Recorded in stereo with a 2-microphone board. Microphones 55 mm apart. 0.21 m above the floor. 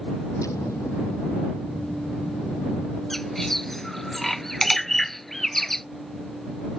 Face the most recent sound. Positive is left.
turn(degrees=5)  # may be behind; listen again after turning